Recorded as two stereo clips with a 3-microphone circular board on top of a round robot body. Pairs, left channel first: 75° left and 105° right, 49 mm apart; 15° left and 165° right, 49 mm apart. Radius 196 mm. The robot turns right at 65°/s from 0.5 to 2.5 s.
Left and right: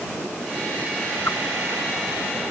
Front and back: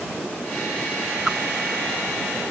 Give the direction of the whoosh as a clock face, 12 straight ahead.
8 o'clock.